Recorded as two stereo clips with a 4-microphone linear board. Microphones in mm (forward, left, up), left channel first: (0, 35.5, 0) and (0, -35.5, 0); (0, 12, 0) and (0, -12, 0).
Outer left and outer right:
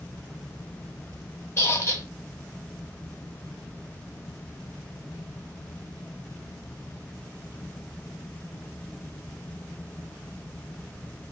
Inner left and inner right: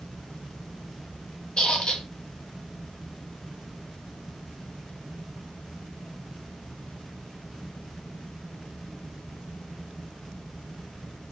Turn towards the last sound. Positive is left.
turn(degrees=40)  # may be behind; listen again after turning